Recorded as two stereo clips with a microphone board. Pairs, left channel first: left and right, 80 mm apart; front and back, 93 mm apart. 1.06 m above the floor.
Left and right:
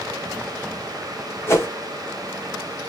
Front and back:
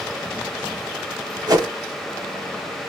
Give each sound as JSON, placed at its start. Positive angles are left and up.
{"t": 1.5, "sound": "a whoosh", "azimuth_deg": 140, "distance_m": 1.2}